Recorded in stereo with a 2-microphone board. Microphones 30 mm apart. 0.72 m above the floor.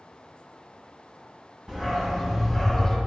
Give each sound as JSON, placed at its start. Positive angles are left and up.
{"t": 1.7, "sound": "a dog barking", "side_deg": -20, "distance_m": 1.9}